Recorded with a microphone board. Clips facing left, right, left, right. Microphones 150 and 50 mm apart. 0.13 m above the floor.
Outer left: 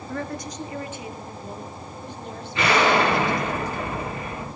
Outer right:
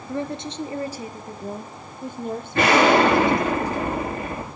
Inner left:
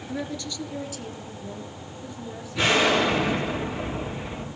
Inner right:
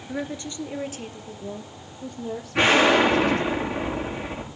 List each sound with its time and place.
0.1 s a woman speaking: 15° right (ahead or behind), 1.7 m; by 3.5 s 50° right (ahead or behind), 5 m
2.5 s an explosion: 45° right (ahead or behind), 8 m